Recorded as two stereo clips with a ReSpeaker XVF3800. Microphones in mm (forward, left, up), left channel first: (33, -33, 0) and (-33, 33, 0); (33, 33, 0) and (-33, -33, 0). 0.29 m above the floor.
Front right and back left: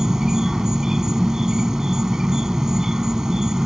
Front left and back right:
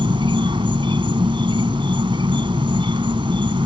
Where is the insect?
140° right.